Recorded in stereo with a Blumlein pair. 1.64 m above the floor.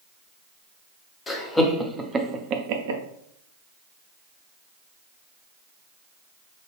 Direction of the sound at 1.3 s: 15° left.